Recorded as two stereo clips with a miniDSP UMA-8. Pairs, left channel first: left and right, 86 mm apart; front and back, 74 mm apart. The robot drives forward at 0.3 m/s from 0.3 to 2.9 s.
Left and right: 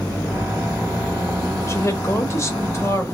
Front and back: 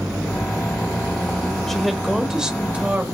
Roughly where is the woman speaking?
Left.